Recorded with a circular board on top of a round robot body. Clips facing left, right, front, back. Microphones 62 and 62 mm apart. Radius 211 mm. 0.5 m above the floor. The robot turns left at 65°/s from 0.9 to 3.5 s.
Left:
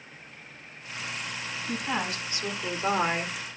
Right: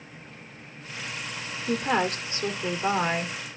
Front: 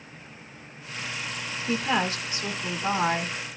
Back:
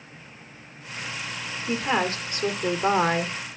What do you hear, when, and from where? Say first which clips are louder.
1.7 s a woman speaking: right 6 dB, back 1 dB; 105° right, 2 m; by 3.3 s 150° left, 2 m